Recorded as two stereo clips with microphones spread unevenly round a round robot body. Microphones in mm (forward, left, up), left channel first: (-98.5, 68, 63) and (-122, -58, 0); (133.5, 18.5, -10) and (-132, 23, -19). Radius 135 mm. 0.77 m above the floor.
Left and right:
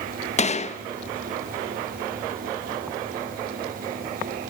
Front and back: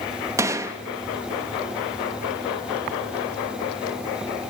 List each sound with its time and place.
0.4 s a gunshot: 115° left, 1.0 m